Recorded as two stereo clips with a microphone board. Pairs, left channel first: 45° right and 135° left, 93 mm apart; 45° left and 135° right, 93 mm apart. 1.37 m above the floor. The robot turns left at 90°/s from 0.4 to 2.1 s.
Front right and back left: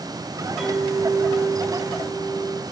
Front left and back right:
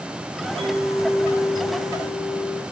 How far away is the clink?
About 1.2 m.